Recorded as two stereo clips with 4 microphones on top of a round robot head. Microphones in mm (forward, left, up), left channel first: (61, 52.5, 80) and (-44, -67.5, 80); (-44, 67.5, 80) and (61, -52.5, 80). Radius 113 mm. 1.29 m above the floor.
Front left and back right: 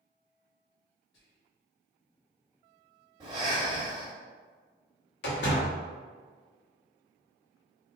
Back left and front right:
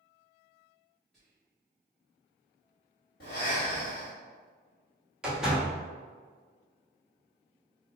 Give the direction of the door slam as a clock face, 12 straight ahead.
11 o'clock.